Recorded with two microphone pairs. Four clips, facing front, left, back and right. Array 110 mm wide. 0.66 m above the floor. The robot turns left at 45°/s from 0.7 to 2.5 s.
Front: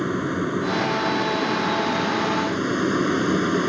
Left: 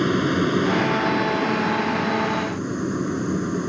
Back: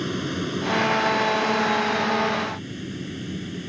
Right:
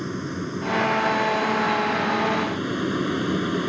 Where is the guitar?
No guitar in this recording.